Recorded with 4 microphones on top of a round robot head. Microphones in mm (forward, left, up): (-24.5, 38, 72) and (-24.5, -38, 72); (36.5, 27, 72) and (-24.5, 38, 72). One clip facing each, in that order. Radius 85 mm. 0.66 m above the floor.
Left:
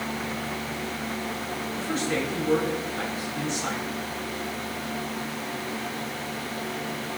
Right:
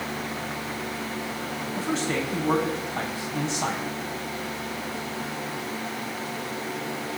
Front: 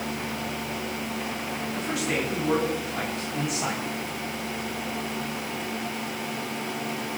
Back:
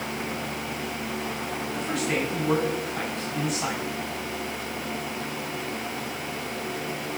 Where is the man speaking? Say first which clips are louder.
Right 1 dB, back 1 dB; 95° right, 6 m.